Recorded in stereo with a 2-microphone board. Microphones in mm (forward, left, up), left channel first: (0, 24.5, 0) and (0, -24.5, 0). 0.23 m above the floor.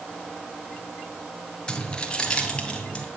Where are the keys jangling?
15° left (ahead or behind), 2 m; by 3.0 s 20° left (ahead or behind), 3 m.